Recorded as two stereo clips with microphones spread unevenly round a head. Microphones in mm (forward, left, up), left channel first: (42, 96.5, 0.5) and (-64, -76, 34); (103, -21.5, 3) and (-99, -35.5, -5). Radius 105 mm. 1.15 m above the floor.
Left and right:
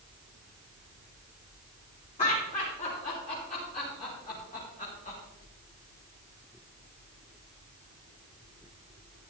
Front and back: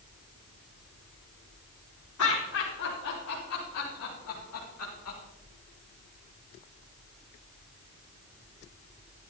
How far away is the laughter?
About 4 m.